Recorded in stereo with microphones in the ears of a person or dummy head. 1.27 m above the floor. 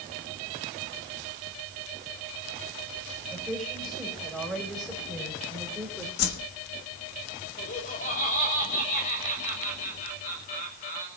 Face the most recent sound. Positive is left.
turn(degrees=40)  # may be behind; listen again after turning